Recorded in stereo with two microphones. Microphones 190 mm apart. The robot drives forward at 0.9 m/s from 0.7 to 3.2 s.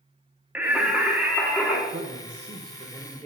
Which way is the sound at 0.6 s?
5° right (ahead or behind).